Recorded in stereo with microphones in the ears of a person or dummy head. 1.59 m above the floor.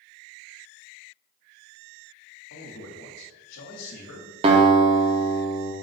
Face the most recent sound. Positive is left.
turn(degrees=-40)  # may be behind; listen again after turning